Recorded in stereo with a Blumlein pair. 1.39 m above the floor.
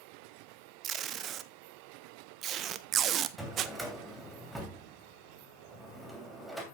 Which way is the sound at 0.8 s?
30° right.